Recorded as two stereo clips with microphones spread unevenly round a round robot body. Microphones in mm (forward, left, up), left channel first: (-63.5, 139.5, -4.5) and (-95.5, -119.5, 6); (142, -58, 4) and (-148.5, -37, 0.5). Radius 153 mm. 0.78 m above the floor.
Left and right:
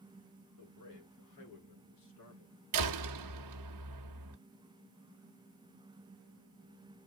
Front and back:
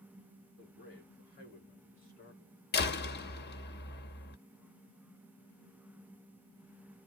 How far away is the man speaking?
About 8 m.